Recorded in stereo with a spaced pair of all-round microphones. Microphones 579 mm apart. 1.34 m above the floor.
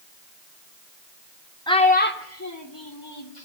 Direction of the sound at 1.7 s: 5° left (ahead or behind).